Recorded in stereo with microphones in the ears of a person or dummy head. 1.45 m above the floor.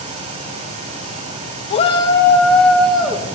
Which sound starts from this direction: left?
A shout, at 1.7 s.